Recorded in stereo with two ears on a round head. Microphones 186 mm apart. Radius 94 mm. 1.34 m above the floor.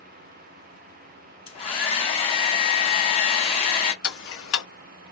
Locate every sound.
1.5 s a hair dryer: 30° left (ahead or behind), 1.2 m
4.0 s ticking: 70° left (ahead or behind), 1.2 m